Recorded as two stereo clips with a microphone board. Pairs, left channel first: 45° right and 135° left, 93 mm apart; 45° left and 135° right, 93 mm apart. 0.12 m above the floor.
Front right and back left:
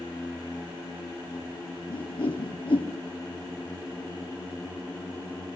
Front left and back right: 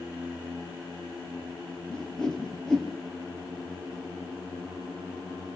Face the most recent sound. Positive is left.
turn(degrees=-35)